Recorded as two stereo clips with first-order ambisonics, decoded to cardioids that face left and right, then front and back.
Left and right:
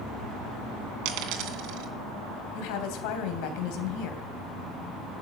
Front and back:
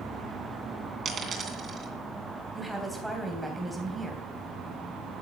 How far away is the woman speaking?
About 3 m.